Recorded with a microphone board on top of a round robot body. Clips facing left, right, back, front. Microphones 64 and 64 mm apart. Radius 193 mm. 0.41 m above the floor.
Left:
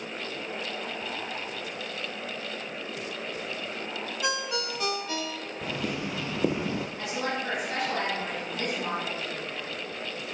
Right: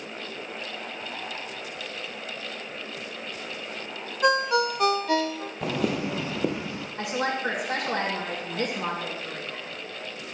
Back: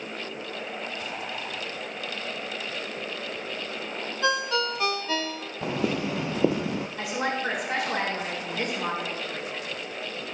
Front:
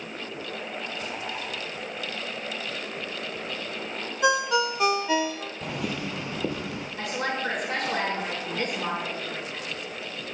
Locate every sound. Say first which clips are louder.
4.2 s a ringtone: right 10 dB, front 3 dB; 70° right, 0.8 m
5.6 s footsteps: right 6 dB, back 5 dB; 120° right, 0.8 m; by 6.9 s 135° left, 0.6 m
7.0 s a woman speaking: right 8 dB, front 1 dB; 100° right, 5 m